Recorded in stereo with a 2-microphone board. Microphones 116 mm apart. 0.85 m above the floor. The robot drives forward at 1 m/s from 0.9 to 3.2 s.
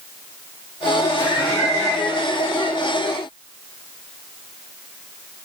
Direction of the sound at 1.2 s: 30° left (ahead or behind).